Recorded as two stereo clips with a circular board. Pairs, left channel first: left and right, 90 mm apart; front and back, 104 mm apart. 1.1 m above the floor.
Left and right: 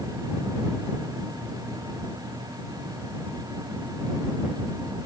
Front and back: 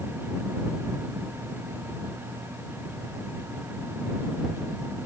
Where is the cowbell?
No cowbell in this recording.